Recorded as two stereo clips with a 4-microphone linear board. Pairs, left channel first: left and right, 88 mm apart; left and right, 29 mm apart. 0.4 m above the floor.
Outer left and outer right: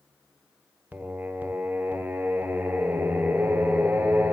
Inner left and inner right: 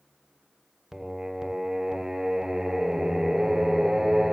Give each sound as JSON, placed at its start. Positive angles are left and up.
{"t": 0.9, "sound": "singing", "side_deg": -20, "distance_m": 0.9}